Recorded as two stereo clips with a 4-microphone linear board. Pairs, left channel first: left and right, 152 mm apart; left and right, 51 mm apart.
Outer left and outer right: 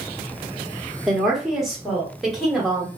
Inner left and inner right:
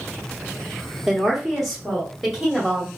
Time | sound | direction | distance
1.1 | a woman speaking | 5° right (ahead or behind) | 1.0 m